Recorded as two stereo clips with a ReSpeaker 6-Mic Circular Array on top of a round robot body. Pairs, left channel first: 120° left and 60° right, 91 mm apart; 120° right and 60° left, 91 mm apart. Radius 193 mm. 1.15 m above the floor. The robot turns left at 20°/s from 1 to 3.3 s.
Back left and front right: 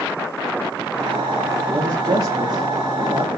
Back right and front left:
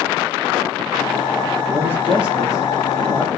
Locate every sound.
1.7 s a man speaking: 10° right, 0.8 m; by 3.3 s 40° right, 0.8 m